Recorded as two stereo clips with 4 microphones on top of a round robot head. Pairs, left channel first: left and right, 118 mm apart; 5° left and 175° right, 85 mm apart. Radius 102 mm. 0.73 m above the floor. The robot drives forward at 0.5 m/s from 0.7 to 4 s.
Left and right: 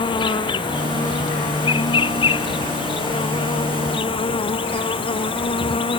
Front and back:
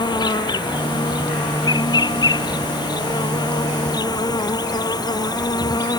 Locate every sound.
0.0 s an insect: 40° left; by 6.0 s 45° left